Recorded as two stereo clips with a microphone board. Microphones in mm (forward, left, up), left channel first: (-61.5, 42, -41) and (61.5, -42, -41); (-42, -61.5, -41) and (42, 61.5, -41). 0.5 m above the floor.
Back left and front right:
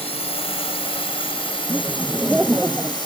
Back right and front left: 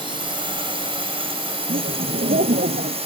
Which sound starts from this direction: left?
A drone, at 0.0 s.